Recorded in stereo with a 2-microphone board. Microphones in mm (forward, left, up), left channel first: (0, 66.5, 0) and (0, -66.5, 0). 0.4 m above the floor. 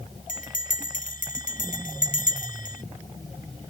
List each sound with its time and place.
0.3 s a bell: 70° left (ahead or behind)